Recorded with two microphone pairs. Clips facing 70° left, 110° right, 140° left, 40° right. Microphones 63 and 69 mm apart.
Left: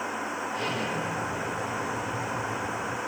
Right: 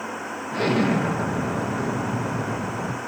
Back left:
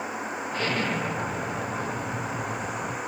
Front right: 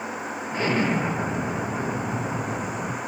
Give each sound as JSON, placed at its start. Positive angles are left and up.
{"t": 0.5, "sound": "an explosion", "azimuth_deg": -110, "distance_m": 0.7}